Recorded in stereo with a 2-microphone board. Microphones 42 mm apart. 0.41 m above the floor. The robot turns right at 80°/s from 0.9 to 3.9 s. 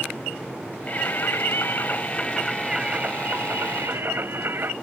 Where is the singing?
45° left; by 4.7 s 75° right.